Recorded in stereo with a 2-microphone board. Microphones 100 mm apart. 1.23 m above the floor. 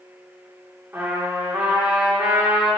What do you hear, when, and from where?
0.9 s a trumpet: 20° right (ahead or behind), 2.5 m